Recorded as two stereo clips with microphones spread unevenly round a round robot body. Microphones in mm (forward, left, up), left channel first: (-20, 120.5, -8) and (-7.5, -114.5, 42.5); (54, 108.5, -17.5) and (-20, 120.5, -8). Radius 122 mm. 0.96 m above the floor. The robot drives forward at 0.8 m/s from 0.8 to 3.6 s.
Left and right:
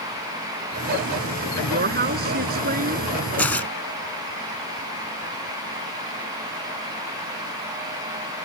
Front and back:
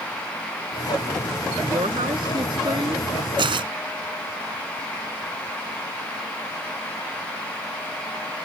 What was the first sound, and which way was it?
A woman speaking, 140° right.